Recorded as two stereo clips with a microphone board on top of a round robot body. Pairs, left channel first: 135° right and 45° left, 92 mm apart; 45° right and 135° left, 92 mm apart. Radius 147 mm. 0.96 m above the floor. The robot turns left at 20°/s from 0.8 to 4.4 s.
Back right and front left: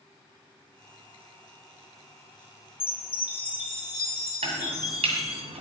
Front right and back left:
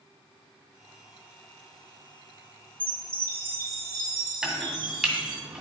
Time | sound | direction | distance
2.8 | a chime | 155° right | 1.9 m
4.4 | chopping | 50° left | 2.0 m